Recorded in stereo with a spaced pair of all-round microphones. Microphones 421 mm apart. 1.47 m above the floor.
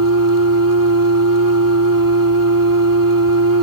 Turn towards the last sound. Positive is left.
turn(degrees=-50)  # may be behind; listen again after turning